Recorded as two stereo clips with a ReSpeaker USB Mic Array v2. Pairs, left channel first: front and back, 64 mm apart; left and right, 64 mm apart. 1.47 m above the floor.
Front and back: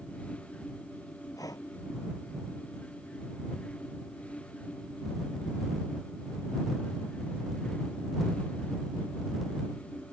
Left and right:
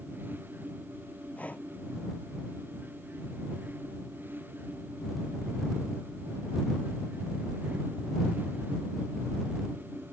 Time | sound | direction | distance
1.4 | breathing | 20° left | ?